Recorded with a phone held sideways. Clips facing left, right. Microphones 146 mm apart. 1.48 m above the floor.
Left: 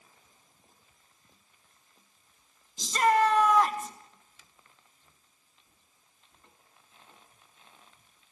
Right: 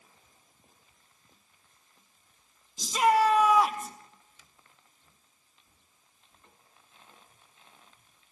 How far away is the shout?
About 0.8 m.